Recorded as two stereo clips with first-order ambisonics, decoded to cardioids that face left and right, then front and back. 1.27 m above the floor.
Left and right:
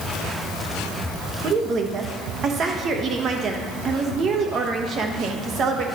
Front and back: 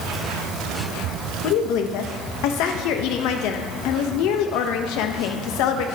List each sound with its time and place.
1.4 s a woman speaking: 30° right, 0.9 m